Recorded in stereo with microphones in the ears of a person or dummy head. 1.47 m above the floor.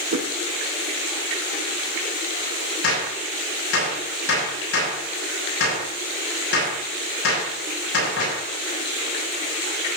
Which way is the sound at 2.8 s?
85° left.